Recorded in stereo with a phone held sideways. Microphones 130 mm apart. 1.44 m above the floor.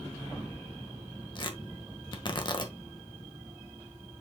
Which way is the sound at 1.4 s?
40° left (ahead or behind).